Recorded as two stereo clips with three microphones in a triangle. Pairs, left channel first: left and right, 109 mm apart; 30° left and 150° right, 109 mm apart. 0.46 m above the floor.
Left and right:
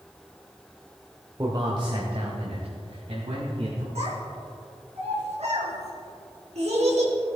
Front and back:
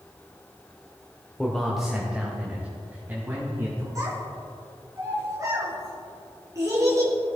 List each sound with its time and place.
1.4 s a man speaking: 50° right, 1.2 m; by 3.9 s 80° right, 3.5 m
4.0 s a child speaking: 90° right, 3 m